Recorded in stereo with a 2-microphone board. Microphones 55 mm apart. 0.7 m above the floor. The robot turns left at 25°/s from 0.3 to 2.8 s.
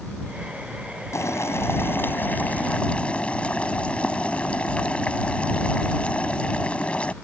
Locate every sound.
1.1 s boiling: 65° left; by 7.1 s 25° left